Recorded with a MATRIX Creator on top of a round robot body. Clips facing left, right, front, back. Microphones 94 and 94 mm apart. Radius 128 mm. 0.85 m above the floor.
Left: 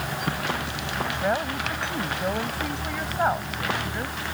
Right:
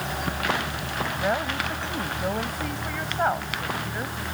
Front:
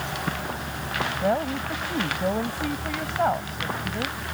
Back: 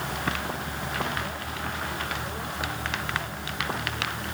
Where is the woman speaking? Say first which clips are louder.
Even, front 9 dB; 5° left.